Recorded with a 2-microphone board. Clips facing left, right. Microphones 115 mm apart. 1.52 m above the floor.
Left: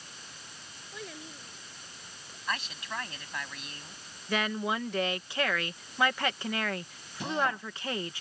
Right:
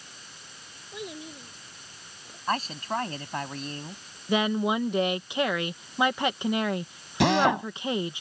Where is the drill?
85° right.